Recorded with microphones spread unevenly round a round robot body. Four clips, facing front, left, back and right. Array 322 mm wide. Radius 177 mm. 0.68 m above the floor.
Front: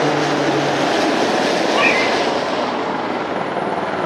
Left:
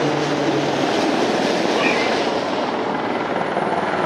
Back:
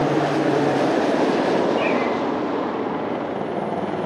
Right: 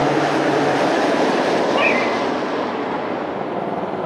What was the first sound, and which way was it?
A cat meowing, 25° right.